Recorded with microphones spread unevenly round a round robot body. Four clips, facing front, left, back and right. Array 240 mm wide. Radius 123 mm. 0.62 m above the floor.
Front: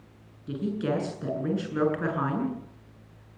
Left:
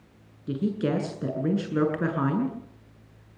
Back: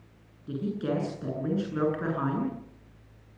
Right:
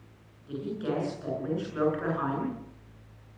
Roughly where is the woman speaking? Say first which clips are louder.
Left 5 dB, front 2 dB; left.